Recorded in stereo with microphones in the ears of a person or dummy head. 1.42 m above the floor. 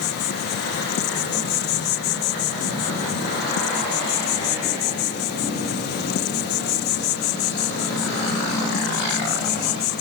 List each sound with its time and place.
0.0 s an insect: 55° left (ahead or behind)